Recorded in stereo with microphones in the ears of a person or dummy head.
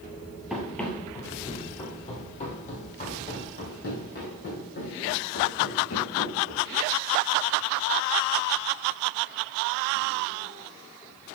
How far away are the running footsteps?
About 1.7 m.